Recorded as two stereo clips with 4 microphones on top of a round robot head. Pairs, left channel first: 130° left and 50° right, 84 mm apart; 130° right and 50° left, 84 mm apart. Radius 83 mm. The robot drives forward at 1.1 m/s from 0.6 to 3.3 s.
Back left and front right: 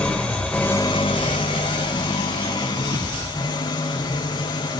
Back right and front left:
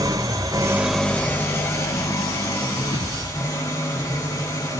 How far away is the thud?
About 10 m.